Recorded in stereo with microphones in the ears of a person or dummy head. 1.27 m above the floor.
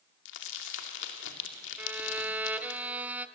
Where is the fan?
I don't hear a fan.